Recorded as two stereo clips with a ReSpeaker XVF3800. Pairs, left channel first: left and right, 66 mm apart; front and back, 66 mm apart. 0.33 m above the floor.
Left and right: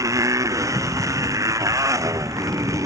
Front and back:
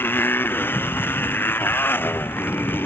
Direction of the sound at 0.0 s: 55° right.